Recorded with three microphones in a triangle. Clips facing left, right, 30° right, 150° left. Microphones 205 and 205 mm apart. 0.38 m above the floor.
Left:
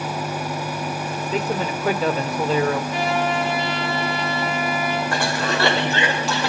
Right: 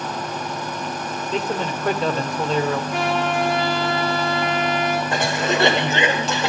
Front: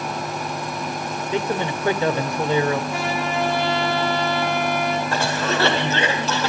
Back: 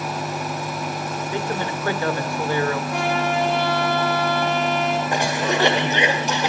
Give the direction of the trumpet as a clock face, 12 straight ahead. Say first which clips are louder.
Even, back 2 dB; 4 o'clock.